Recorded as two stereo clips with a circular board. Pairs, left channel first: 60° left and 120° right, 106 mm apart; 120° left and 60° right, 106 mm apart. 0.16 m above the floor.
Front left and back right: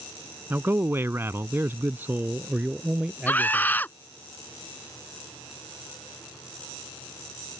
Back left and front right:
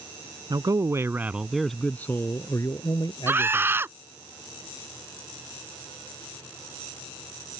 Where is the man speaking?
60° right; by 3.8 s 160° left.